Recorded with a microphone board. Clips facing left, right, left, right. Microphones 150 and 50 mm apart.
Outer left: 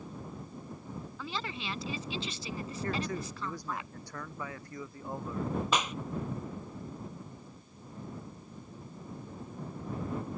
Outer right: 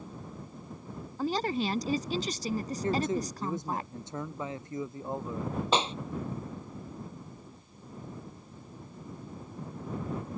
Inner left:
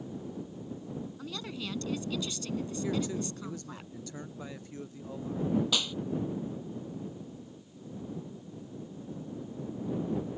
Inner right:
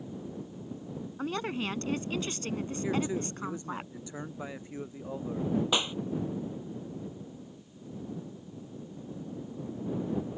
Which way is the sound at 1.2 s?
40° right (ahead or behind).